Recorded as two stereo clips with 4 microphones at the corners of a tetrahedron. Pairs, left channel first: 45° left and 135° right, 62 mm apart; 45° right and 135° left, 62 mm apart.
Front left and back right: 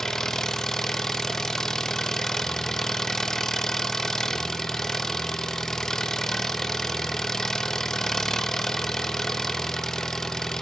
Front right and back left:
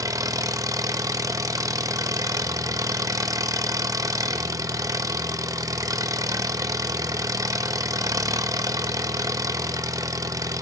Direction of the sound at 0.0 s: 125° left.